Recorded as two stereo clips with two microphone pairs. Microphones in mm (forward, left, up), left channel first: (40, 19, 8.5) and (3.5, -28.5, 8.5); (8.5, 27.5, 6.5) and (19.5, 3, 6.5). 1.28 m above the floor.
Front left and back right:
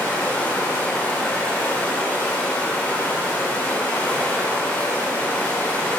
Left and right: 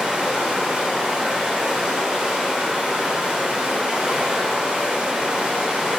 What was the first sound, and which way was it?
Running water, 15° right.